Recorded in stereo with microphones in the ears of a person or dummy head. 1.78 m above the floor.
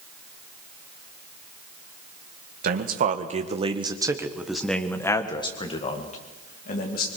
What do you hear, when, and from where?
2.6 s a man speaking: 55° right (ahead or behind), 2 m; by 7.1 s 50° left (ahead or behind), 3 m